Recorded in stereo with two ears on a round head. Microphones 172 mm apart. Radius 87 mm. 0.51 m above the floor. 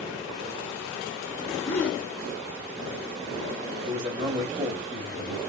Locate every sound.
1.6 s a gasp: 10° left (ahead or behind), 1.2 m
3.9 s a man speaking: 25° right (ahead or behind), 1.0 m